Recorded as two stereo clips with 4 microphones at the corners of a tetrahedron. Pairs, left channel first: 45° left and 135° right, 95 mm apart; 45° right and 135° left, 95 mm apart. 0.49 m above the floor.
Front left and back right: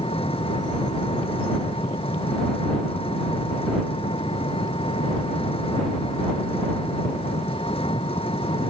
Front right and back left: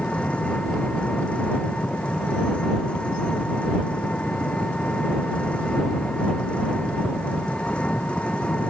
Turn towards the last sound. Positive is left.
turn(degrees=30)